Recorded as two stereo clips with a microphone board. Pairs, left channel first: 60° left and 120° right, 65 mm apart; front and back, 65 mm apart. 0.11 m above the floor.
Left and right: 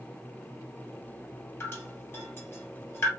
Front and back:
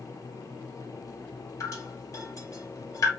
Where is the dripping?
15° left, 2 m.